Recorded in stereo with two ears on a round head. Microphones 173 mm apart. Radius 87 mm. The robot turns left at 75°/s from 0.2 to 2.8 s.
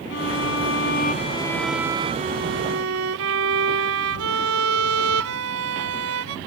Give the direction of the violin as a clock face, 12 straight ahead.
8 o'clock.